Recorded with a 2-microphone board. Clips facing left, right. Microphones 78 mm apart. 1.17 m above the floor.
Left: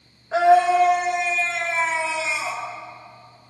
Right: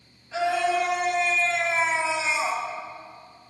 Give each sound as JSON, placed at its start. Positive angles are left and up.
{"t": 0.3, "sound": "a scream", "side_deg": 50, "distance_m": 2.0}